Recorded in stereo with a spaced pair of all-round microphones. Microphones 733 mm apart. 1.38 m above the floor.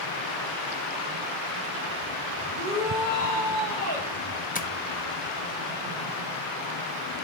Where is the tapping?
15° left (ahead or behind), 0.6 m.